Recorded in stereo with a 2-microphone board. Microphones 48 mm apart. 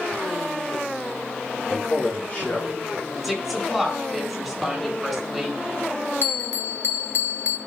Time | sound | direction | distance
1.7 | a man speaking | 25° left (ahead or behind) | 5.5 m
3.2 | a woman speaking | 5° left (ahead or behind) | 5 m
6.2 | a bell | 60° left (ahead or behind) | 0.9 m